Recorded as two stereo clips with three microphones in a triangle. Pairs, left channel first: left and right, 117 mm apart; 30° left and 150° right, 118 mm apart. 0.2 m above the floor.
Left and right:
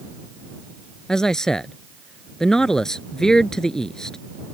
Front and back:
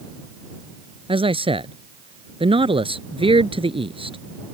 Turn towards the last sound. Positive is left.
turn(degrees=175)